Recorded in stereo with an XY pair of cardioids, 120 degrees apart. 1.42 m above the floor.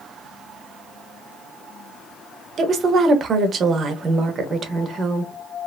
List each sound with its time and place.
2.6 s a woman speaking: 45° right, 0.9 m